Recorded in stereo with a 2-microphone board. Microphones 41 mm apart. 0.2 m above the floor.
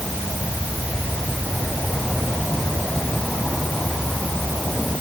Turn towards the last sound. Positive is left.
No sound to turn to.